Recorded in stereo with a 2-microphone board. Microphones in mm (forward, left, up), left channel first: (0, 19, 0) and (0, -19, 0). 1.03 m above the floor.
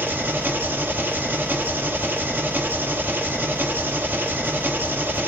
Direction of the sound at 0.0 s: 60° right (ahead or behind).